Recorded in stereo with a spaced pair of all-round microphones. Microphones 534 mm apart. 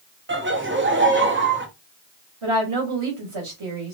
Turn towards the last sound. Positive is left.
turn(degrees=-65)  # may be behind; listen again after turning